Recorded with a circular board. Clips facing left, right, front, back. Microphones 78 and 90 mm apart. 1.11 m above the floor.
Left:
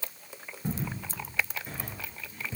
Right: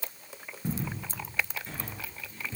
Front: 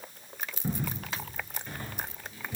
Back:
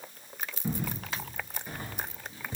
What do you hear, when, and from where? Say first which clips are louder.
0.6 s footsteps: even, even; 15° left, 1.1 m; by 2.6 s 160° left, 1.2 m